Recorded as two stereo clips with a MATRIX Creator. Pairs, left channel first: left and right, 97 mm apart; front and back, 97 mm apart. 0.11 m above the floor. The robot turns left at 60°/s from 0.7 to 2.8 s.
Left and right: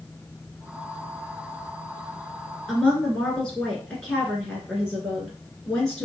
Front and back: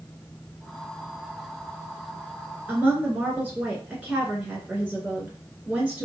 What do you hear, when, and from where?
2.7 s a woman speaking: 155° left, 1.4 m; by 6.1 s 150° left, 1.4 m